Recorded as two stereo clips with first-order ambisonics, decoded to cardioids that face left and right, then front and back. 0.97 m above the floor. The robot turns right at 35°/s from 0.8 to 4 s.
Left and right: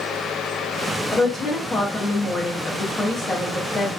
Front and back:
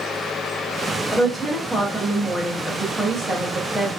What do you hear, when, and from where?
1.1 s a woman speaking: 35° left, 0.6 m; by 3.9 s 130° left, 0.6 m